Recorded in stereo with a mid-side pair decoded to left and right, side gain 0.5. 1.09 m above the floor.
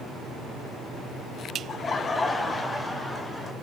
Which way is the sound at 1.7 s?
45° left.